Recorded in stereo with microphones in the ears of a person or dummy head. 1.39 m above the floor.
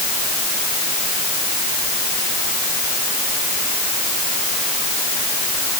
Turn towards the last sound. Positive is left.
No sound to turn to.